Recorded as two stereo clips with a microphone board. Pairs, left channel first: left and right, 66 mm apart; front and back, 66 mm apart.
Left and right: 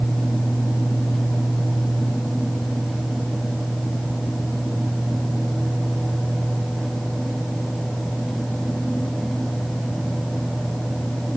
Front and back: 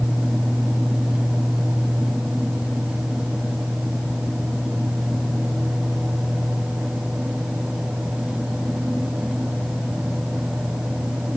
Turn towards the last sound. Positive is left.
No sound to turn to.